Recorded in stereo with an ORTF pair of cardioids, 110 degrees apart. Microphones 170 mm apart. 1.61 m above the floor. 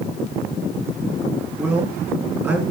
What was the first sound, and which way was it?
A man speaking, 15° right.